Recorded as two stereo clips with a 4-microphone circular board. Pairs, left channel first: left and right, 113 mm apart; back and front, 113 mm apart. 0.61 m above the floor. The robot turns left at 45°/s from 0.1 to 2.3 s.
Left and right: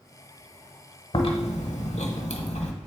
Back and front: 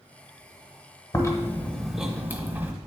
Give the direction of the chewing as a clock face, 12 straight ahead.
8 o'clock.